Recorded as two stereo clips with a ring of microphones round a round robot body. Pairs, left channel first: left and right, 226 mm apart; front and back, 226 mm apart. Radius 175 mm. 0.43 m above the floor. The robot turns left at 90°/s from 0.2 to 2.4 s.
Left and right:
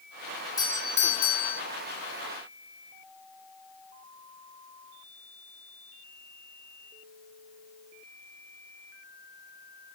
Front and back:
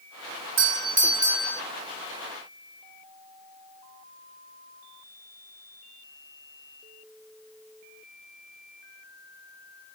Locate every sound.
0.6 s a doorbell: 165° left, 2.5 m; by 1.6 s 70° left, 2.5 m